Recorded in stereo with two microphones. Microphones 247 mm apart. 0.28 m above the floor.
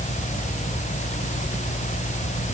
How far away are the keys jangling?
I don't hear keys jangling.